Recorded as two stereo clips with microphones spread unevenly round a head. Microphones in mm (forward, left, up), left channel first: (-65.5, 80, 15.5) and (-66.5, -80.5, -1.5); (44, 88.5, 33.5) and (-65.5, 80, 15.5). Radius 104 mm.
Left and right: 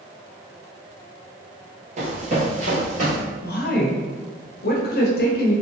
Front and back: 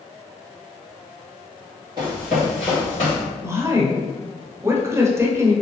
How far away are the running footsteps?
About 1.9 m.